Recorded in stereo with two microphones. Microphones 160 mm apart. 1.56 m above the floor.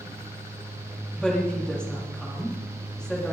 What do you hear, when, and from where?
1.1 s a woman speaking: 5° left (ahead or behind), 3.5 m